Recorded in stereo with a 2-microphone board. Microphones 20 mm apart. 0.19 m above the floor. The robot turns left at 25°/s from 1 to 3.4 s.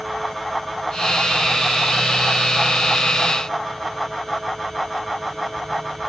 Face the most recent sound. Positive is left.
No sound to turn to.